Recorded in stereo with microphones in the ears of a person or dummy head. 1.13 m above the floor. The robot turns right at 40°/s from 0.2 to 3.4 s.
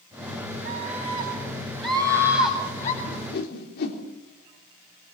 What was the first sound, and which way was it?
A scream, 50° right.